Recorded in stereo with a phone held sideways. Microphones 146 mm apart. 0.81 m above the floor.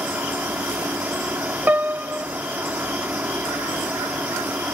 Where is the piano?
10° right (ahead or behind), 0.5 m.